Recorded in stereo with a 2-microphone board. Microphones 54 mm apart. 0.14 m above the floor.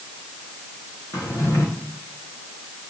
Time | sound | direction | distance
1.1 | a drawer | 75° left (ahead or behind) | 4.5 m